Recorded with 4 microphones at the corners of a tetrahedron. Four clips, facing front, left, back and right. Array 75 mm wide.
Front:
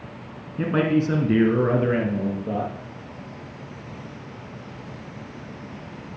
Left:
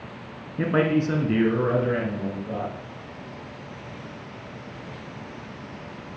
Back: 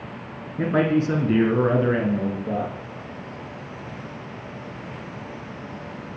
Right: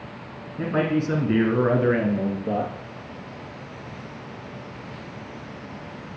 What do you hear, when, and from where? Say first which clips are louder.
0.6 s a man speaking: left 2 dB, back 1 dB; 95° left, 1.4 m; by 2.7 s 85° right, 2.5 m